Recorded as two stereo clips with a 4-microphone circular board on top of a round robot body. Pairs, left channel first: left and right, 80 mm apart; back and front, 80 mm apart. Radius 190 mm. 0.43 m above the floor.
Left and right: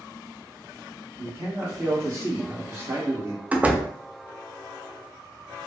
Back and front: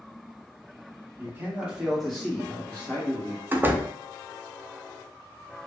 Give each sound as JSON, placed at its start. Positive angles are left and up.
{"t": 1.2, "sound": "a man speaking", "azimuth_deg": -45, "distance_m": 1.5}
{"t": 3.5, "sound": "a door slam", "azimuth_deg": -35, "distance_m": 0.7}